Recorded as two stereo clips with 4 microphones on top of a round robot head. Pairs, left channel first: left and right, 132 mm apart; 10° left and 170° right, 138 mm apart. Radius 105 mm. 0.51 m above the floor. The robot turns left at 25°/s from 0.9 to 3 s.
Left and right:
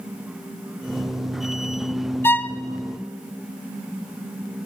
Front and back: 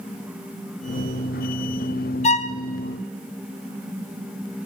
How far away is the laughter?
No laughter in this recording.